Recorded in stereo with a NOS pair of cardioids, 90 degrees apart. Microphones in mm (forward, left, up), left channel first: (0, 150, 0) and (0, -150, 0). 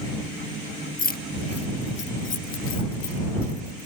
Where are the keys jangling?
30° left; by 3.9 s 50° left.